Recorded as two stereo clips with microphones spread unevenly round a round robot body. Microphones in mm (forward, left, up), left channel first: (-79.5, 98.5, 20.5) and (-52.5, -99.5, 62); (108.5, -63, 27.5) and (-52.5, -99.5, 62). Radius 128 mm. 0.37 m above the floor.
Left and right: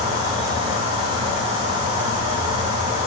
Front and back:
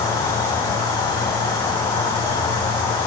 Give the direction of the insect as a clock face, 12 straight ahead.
12 o'clock.